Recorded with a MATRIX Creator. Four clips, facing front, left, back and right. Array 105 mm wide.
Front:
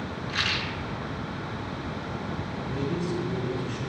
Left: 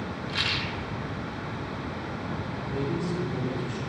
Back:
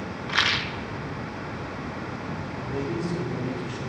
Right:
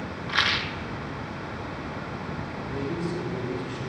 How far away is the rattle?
About 0.6 m.